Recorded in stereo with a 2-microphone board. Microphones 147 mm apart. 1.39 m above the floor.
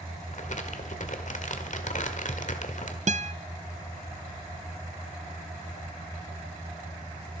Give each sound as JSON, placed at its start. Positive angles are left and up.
{"t": 0.3, "sound": "crumpling", "side_deg": 60, "distance_m": 1.7}
{"t": 3.1, "sound": "a guitar", "side_deg": -55, "distance_m": 0.6}